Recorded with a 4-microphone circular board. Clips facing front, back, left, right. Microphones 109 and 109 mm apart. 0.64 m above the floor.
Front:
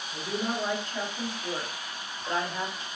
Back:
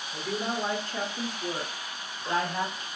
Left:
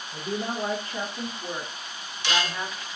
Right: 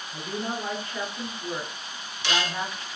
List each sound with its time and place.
0.1 s a woman speaking: 130° left, 1.4 m; by 2.9 s 145° right, 1.3 m